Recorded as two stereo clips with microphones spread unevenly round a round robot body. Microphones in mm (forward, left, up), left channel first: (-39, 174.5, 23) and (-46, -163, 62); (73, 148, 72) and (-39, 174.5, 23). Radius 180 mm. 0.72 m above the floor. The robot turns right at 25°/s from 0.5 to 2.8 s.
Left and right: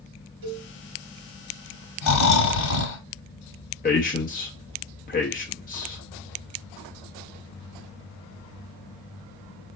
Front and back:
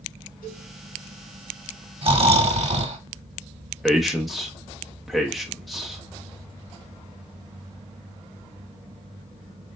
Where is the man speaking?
115° left, 0.8 m.